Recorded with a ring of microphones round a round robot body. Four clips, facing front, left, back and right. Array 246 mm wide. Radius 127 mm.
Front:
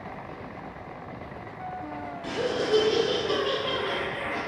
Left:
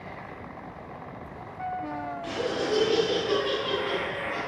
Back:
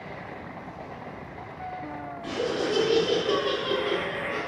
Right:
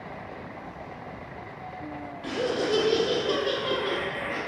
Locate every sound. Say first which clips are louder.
2.2 s laughter: right 3 dB, even; 85° right, 0.7 m; by 4.4 s 170° right, 1.3 m